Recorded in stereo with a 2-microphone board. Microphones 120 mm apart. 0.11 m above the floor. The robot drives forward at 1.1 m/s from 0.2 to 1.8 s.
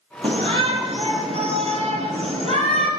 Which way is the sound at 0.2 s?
45° right (ahead or behind).